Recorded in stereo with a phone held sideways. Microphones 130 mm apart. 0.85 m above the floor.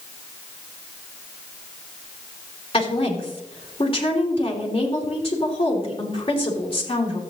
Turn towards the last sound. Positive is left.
turn(degrees=45)  # may be behind; listen again after turning